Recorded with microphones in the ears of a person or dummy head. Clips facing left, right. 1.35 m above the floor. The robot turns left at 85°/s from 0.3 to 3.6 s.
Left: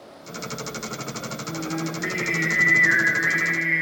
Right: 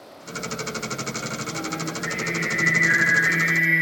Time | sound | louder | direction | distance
1.5 | singing | left 5 dB | 165° left | 4 m